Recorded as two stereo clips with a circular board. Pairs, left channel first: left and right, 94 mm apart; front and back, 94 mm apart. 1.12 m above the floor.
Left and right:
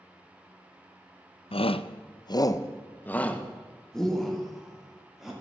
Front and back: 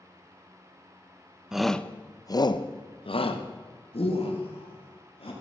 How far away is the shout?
About 0.6 m.